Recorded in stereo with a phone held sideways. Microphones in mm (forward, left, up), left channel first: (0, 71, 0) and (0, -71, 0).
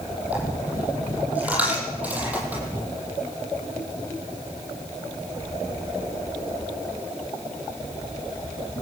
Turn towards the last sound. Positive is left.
turn(degrees=-10)  # may be behind; listen again after turning